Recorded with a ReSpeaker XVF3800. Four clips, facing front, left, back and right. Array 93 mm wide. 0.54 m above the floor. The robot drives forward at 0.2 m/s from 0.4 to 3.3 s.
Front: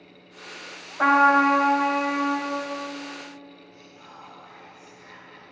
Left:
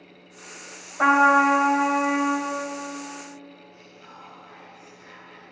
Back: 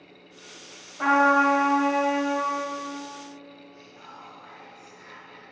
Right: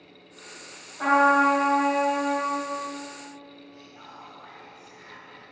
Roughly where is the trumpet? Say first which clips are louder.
Left 2 dB, front 2 dB; ahead left.